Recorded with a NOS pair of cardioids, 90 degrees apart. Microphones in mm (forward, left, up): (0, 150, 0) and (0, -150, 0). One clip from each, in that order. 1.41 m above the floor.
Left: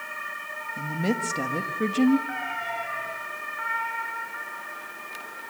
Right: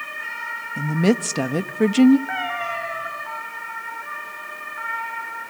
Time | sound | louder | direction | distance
0.8 | a woman speaking | right 7 dB | 45° right | 1.4 m
2.3 | a cat meowing | right 5 dB | 55° right | 5.5 m